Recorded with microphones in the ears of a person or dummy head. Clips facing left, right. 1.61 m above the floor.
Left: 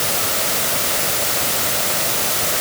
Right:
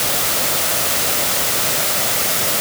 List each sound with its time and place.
Only background noise.